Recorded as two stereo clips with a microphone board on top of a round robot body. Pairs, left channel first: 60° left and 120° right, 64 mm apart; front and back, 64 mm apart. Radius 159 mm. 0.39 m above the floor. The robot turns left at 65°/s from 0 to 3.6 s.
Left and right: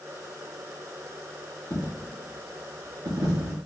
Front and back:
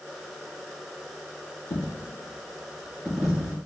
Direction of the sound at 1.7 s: 5° left.